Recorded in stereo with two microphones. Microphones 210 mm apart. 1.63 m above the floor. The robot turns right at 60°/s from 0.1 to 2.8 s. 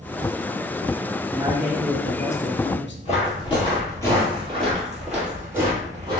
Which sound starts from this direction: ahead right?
A man speaking, at 1.3 s.